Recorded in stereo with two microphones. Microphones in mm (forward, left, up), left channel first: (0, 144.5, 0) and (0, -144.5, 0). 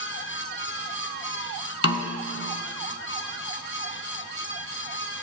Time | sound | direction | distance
1.8 | a snare drum | 50° left (ahead or behind) | 0.8 m